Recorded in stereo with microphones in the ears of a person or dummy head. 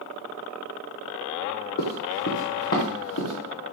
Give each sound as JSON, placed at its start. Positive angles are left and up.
{"t": 1.8, "sound": "running footsteps", "side_deg": 50, "distance_m": 2.0}